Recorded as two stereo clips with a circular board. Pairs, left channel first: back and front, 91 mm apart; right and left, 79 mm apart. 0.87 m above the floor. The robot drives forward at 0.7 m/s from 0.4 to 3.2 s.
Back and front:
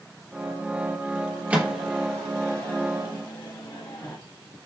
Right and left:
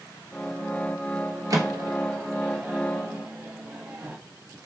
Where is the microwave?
65° left, 0.9 m; by 4.2 s 145° left, 1.2 m.